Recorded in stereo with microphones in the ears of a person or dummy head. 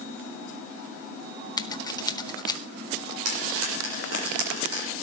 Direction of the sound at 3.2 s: 70° right (ahead or behind).